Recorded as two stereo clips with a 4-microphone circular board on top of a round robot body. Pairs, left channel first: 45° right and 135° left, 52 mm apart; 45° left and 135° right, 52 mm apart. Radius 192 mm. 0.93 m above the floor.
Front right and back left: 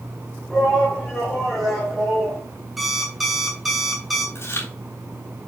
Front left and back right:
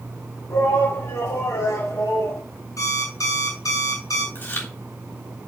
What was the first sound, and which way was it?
A shout, 30° left.